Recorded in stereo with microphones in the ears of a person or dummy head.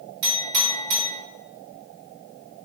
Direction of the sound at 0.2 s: 55° right (ahead or behind).